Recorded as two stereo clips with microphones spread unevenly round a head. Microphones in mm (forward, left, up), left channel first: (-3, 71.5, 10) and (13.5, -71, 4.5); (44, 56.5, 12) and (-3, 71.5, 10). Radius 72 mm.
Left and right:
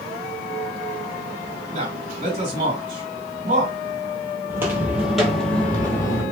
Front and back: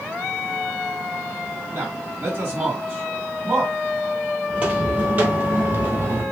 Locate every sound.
1.7 s a man speaking: 130° right, 2.0 m
4.5 s footsteps: 145° right, 1.4 m; by 6.2 s 155° left, 1.7 m